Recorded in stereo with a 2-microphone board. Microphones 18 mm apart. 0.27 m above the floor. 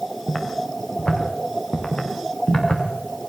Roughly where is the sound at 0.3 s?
Left.